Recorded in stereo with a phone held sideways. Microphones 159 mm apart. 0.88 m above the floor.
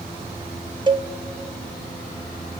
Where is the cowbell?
30° right (ahead or behind), 0.7 m.